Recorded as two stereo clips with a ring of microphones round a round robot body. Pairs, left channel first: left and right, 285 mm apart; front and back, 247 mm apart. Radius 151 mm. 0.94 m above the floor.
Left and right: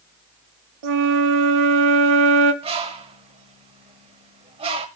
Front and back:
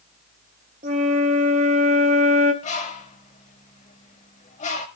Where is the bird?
35° right, 0.8 m.